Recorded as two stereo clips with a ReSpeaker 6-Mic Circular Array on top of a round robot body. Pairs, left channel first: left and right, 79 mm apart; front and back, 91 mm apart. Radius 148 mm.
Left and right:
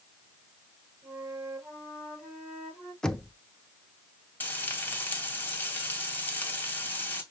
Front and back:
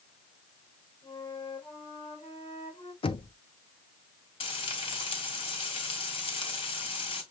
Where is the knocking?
10° left, 0.8 m.